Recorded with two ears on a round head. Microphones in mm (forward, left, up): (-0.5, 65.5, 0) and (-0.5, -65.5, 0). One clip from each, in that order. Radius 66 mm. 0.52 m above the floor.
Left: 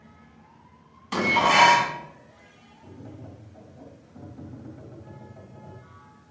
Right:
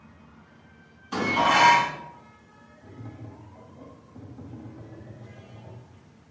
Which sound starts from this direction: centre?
Tapping, at 2.8 s.